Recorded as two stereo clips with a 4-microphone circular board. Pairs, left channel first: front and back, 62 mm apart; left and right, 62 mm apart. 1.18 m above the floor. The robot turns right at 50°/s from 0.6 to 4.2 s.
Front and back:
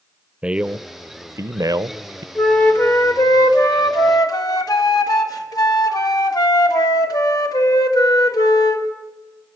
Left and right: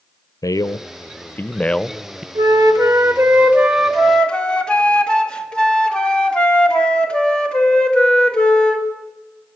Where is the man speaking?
105° left, 0.6 m; by 2.2 s 170° right, 0.6 m.